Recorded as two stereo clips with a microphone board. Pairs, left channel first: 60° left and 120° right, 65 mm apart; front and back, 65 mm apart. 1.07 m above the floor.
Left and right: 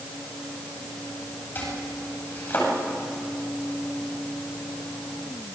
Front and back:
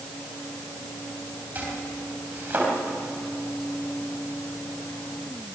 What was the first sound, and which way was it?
Chopping, 115° left.